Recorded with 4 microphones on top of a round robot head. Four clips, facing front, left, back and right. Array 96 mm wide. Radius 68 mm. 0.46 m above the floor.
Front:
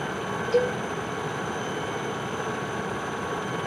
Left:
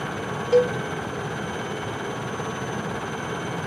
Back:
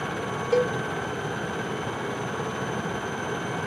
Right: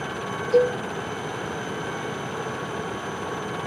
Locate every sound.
0.5 s a cowbell: 130° left, 3 m